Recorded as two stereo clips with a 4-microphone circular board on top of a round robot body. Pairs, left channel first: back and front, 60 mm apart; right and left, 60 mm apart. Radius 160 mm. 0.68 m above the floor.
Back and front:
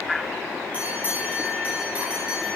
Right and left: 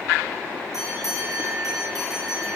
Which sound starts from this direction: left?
A bell, at 0.7 s.